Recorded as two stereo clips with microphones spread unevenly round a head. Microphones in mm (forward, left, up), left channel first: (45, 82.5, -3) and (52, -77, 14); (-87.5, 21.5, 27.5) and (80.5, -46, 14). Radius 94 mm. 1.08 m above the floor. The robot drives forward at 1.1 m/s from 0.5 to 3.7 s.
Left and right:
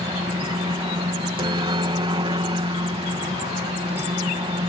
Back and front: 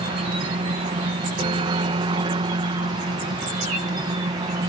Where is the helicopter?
50° right; by 4.7 s 60° right.